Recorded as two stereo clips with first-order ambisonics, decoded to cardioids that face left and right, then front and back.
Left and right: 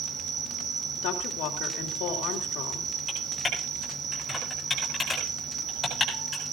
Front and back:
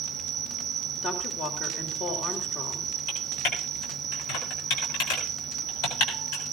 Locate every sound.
0.0 s an insect: 120° right, 1.5 m
1.0 s a woman speaking: 60° left, 3 m
3.1 s typing on a keyboard: 5° right, 9.5 m